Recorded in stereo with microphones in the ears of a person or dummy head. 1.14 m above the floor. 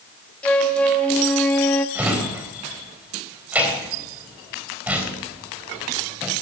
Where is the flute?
5° left (ahead or behind), 1.6 m.